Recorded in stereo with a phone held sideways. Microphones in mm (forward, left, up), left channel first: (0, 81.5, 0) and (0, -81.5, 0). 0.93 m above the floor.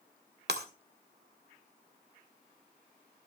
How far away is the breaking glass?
About 1.8 m.